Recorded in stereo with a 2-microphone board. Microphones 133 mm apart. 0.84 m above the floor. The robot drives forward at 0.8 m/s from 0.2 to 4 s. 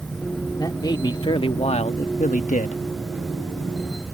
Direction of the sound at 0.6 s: 30° left (ahead or behind).